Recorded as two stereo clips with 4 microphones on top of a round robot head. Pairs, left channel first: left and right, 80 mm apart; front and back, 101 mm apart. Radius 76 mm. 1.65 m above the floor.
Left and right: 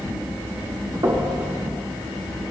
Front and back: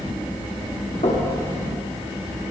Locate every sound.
1.0 s knocking: 45° right, 3.5 m